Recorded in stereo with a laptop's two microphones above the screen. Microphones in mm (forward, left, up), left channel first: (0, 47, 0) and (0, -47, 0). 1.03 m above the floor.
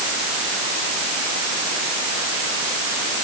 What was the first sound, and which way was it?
Only background noise.